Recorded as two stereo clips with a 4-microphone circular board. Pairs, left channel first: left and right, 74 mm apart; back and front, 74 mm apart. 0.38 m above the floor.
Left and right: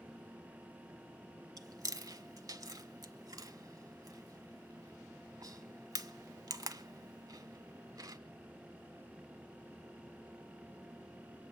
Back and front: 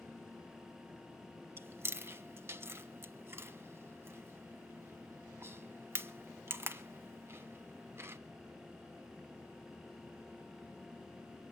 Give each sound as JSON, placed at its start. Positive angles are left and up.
{"t": 1.6, "sound": "chewing", "azimuth_deg": -55, "distance_m": 0.9}